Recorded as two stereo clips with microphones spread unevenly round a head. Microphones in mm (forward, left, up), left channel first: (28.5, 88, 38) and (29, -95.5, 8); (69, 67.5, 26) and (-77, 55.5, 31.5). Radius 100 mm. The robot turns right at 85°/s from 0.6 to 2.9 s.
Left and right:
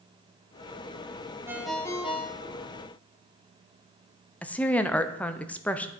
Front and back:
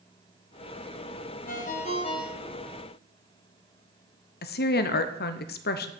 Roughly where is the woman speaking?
Ahead.